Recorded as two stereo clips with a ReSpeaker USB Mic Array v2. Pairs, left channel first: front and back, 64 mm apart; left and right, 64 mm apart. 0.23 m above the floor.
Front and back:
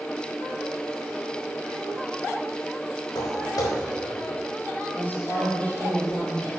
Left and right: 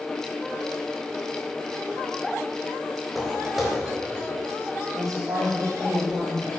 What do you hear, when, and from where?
3.1 s footsteps: straight ahead, 4.5 m
4.9 s a woman speaking: 60° right, 6 m